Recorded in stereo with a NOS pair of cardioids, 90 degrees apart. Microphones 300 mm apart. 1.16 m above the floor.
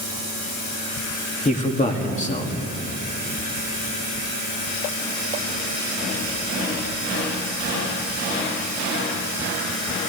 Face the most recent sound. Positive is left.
turn(degrees=25)